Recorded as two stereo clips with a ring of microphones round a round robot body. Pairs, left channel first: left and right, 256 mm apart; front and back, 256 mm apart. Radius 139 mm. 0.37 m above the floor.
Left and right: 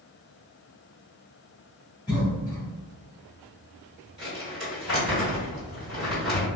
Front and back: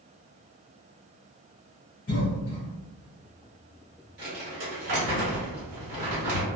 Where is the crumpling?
Straight behind, 1.8 m.